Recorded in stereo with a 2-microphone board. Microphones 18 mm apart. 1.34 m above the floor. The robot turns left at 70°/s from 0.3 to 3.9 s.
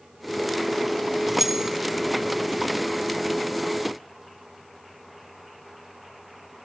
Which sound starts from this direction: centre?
Keys jangling, at 1.3 s.